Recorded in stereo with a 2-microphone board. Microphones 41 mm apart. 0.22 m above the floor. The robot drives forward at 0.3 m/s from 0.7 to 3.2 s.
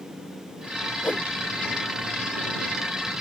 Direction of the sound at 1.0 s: 65° left (ahead or behind).